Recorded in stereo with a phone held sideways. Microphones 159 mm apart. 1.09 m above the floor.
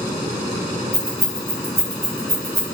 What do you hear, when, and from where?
0.9 s keys jangling: 70° right (ahead or behind), 1.0 m; by 2.6 s 20° right (ahead or behind), 0.9 m